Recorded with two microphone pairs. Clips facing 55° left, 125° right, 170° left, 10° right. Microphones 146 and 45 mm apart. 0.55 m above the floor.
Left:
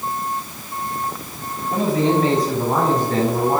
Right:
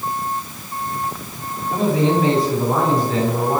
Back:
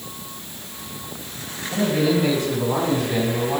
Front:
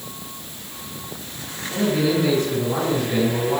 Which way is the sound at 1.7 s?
110° left.